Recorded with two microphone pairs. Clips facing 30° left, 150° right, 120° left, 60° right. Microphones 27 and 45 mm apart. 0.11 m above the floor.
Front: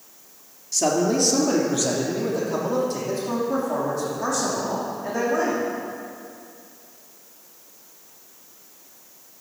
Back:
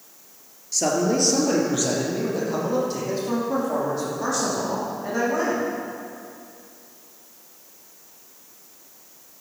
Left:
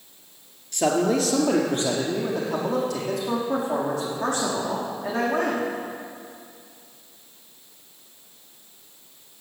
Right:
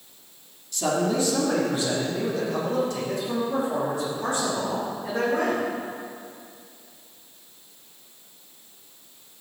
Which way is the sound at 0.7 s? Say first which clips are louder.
Front 1 dB, left 3 dB; 120° left.